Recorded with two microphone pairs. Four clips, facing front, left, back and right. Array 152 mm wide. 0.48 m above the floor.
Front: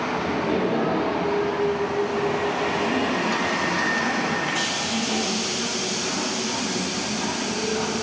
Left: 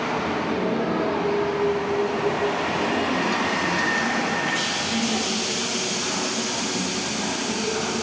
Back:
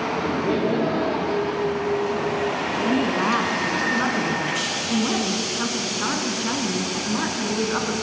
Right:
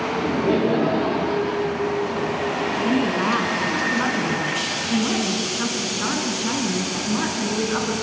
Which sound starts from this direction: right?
Laughter, at 0.1 s.